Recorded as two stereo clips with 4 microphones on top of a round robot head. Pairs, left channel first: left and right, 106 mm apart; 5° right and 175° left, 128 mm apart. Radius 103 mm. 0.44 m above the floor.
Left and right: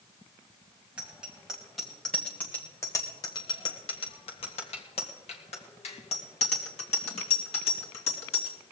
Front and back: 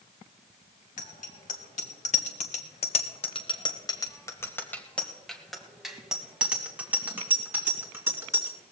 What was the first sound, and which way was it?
A bicycle bell, 10° right.